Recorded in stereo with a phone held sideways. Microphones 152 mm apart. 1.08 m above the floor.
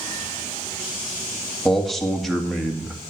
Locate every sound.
1.6 s a man speaking: centre (ahead or behind), 2 m